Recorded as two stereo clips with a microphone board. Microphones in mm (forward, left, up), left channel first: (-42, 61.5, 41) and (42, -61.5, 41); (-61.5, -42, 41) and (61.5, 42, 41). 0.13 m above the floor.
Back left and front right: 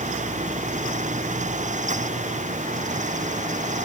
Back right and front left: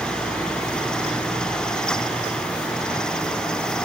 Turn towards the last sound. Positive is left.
No sound to turn to.